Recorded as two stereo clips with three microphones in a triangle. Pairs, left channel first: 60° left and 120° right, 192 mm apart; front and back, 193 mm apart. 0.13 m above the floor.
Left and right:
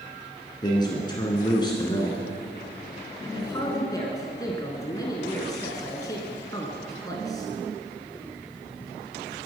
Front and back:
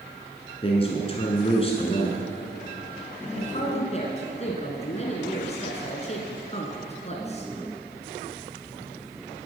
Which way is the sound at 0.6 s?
15° left.